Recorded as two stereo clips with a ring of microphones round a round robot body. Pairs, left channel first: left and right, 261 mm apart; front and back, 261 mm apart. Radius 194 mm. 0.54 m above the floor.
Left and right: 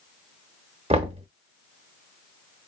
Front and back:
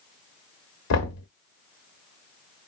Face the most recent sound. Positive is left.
turn(degrees=-20)